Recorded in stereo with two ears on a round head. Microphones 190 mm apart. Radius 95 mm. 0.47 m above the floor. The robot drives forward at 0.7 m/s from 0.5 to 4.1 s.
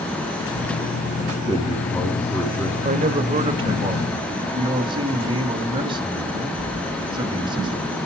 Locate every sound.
1.3 s a man speaking: 15° left (ahead or behind), 4 m; by 2.8 s 10° left (ahead or behind), 5 m
2.9 s a man speaking: 35° right (ahead or behind), 1.6 m; by 7.9 s 25° right (ahead or behind), 2 m